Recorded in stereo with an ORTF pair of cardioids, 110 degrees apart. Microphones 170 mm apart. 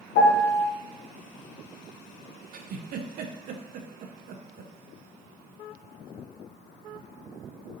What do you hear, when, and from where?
0.1 s a piano: 70° left, 0.8 m
2.5 s a giggle: 60° right, 0.5 m